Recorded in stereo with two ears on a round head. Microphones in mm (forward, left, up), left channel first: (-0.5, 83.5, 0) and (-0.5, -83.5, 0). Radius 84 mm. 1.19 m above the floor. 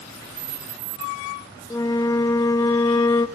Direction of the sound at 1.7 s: 15° left (ahead or behind).